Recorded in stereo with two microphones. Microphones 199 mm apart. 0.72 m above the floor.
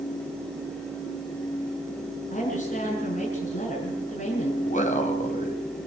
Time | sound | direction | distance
2.3 | a woman speaking | 40° left (ahead or behind) | 7 m
4.6 | a man speaking | 40° left (ahead or behind) | 4.5 m